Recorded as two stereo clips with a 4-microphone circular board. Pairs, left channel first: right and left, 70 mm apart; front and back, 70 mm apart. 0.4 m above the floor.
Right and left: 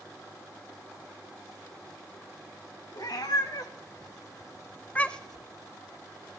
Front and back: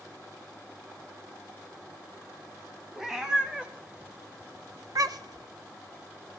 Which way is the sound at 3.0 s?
95° right.